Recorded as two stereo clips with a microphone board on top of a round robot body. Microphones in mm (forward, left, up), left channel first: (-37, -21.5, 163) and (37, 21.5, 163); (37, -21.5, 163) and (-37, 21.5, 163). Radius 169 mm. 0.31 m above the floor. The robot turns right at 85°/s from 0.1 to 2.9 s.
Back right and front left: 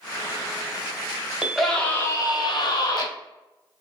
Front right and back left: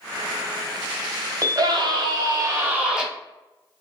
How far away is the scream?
About 1.6 m.